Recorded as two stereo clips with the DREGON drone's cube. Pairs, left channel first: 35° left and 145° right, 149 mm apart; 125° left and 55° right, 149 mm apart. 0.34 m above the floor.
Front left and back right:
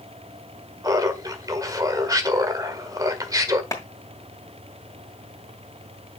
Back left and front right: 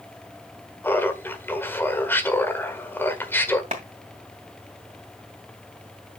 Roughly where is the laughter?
Behind.